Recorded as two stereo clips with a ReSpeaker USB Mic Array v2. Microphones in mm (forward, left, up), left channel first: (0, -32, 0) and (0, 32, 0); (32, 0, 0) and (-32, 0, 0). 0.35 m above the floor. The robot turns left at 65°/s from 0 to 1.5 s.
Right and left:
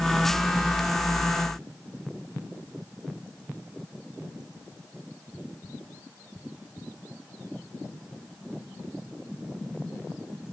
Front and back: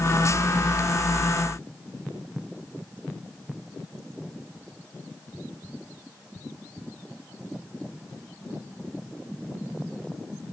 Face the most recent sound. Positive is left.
No sound to turn to.